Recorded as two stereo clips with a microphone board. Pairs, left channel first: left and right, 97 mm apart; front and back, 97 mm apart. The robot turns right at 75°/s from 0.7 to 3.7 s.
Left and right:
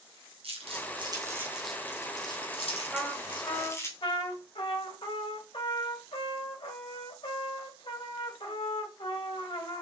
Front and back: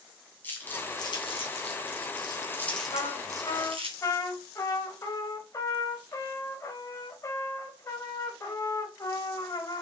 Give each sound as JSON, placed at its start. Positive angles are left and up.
{"t": 0.4, "sound": "crumpling", "azimuth_deg": -70, "distance_m": 3.5}
{"t": 2.9, "sound": "a trumpet", "azimuth_deg": 0, "distance_m": 2.5}